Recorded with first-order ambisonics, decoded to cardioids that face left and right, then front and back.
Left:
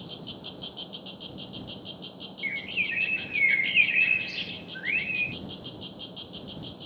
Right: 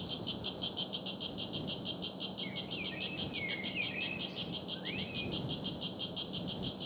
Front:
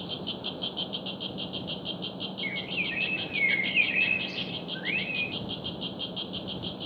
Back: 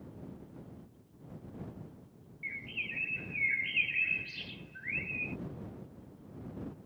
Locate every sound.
0.0 s an insect: straight ahead
2.4 s a bird: 70° left